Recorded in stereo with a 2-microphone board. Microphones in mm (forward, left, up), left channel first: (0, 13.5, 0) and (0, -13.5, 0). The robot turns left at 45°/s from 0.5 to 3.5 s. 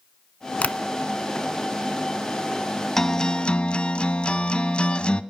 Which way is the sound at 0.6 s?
55° left (ahead or behind).